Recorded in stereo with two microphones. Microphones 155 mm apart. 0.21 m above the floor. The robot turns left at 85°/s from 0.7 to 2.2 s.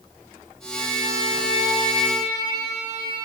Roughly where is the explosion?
No explosion in this recording.